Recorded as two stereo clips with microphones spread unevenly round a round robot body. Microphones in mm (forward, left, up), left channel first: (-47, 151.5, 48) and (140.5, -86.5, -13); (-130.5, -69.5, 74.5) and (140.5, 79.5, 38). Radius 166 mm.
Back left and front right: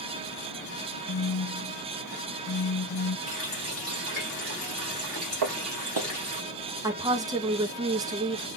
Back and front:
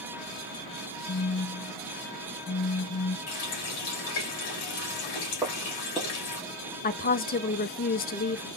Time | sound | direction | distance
1.1 | a phone buzzing | 160° left | 0.6 m
3.3 | a running tap | 145° right | 2.5 m
5.4 | footsteps | 55° right | 1.3 m
6.8 | a woman speaking | 100° right | 0.7 m